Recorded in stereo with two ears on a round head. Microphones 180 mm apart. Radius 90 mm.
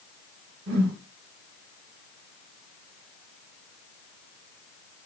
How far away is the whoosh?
About 1.7 m.